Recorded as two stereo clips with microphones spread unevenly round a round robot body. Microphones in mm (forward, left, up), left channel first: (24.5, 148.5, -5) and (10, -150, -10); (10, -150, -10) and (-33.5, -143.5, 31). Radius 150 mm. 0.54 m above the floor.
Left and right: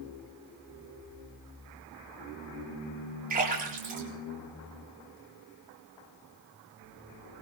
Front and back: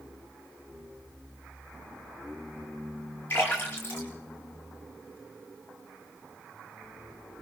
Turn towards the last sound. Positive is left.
turn(degrees=-30)